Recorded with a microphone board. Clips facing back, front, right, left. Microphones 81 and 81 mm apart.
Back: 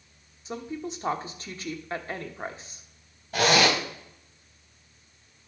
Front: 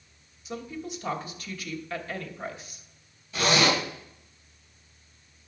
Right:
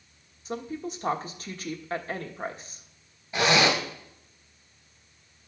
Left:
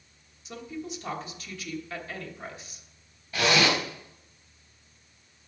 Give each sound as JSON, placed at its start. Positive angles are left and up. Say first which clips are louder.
{"t": 0.5, "sound": "a woman speaking", "louder": "back 2 dB, right 4 dB", "azimuth_deg": -130, "distance_m": 1.1}
{"t": 3.3, "sound": "a zipper", "louder": "back 2 dB, right 1 dB", "azimuth_deg": -155, "distance_m": 3.0}